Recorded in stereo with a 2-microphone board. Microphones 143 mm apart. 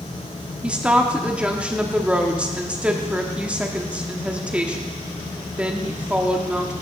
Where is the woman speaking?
10° right (ahead or behind), 1.0 m.